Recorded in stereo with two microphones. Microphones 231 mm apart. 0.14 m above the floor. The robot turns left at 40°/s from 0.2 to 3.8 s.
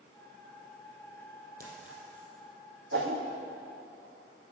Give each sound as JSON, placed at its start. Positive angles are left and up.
{"t": 1.6, "sound": "a clink", "side_deg": -45, "distance_m": 3.0}
{"t": 2.9, "sound": "a whoosh", "side_deg": -65, "distance_m": 1.3}